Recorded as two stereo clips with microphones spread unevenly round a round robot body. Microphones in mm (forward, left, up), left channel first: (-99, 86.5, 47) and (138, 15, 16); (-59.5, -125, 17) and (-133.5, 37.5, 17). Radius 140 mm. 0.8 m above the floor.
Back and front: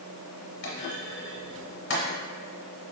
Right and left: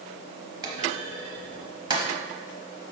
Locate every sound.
0.6 s a clunk: 175° left, 0.8 m